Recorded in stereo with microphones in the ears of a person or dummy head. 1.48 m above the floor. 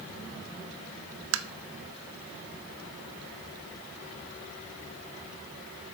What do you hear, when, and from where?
1.3 s tapping: 60° right (ahead or behind), 0.6 m